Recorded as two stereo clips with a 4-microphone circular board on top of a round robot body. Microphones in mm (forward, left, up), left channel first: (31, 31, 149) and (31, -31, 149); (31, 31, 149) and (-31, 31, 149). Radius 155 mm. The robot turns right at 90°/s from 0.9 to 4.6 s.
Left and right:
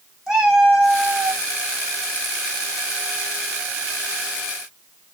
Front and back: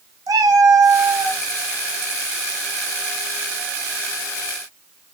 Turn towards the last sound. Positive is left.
turn(degrees=160)